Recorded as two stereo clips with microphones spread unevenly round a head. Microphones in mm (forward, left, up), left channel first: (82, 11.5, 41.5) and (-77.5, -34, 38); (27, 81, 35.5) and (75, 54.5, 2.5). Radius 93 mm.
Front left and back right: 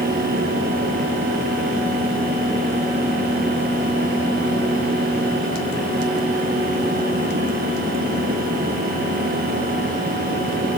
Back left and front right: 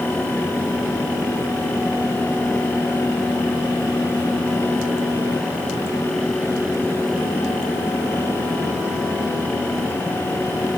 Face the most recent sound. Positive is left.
No sound to turn to.